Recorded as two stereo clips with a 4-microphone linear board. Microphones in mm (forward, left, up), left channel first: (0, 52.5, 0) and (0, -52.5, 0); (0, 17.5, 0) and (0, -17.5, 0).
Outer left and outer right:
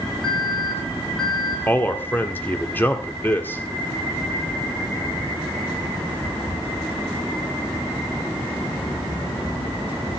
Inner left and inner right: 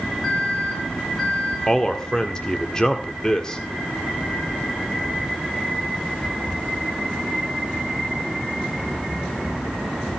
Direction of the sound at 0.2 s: 5° left (ahead or behind).